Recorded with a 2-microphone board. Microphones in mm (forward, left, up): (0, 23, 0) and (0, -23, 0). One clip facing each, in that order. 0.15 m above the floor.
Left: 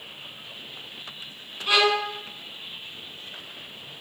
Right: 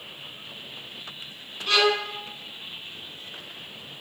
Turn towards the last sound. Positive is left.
turn(degrees=15)  # may be behind; listen again after turning